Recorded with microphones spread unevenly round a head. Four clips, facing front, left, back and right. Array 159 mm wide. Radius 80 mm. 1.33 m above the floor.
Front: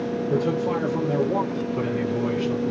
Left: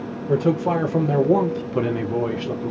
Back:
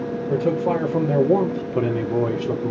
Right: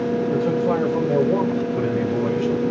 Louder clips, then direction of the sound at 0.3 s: Left 4 dB, back 4 dB; 105° left.